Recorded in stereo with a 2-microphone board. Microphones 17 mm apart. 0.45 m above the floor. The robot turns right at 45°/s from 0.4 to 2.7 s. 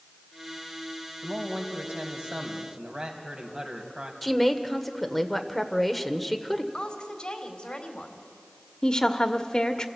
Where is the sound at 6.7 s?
60° left (ahead or behind), 2.5 m.